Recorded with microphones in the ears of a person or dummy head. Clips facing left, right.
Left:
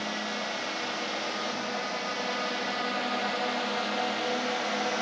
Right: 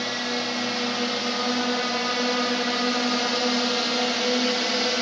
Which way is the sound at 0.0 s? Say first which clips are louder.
Right 5 dB; 65° right (ahead or behind).